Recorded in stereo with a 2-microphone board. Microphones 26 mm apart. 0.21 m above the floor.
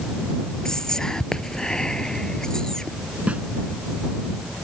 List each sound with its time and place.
0.7 s whispering: 20° left (ahead or behind)
3.3 s a snare drum: 60° right (ahead or behind)